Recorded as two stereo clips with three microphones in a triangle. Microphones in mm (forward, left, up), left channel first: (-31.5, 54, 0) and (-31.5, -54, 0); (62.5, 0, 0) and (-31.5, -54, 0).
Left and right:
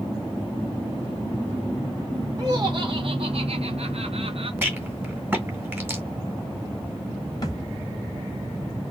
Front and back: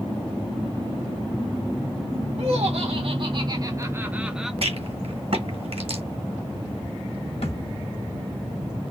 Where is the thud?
40° left, 1.6 m.